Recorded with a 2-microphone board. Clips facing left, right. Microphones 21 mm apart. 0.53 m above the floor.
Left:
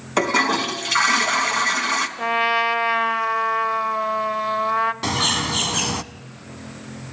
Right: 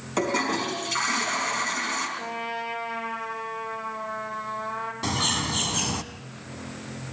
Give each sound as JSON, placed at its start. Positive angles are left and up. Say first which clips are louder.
{"t": 0.2, "sound": "a toilet flushing", "louder": "left 6 dB", "side_deg": 35, "distance_m": 3.0}
{"t": 2.2, "sound": "a trumpet", "louder": "left 12 dB", "side_deg": 55, "distance_m": 2.5}
{"t": 5.0, "sound": "a bird", "louder": "left 5 dB", "side_deg": 25, "distance_m": 0.9}